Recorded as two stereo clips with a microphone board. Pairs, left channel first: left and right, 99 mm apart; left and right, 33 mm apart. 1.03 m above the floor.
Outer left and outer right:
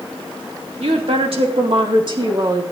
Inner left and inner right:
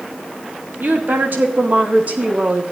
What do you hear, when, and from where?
0.8 s a woman speaking: 75° right (ahead or behind), 2 m; by 2.6 s 40° right (ahead or behind), 1.9 m